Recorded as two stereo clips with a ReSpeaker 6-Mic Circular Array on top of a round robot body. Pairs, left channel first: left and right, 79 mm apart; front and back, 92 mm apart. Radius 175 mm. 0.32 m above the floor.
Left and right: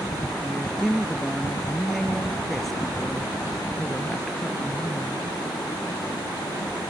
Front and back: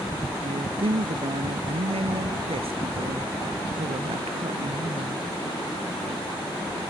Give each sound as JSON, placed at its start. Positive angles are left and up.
{"t": 0.4, "sound": "a woman speaking", "azimuth_deg": 180}